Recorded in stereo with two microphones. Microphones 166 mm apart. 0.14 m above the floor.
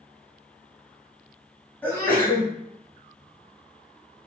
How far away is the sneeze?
About 1.8 m.